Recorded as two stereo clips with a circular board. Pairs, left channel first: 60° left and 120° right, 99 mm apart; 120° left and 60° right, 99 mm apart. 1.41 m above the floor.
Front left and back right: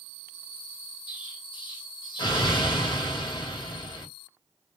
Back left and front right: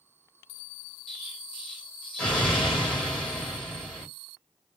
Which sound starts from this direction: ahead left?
An explosion, at 1.1 s.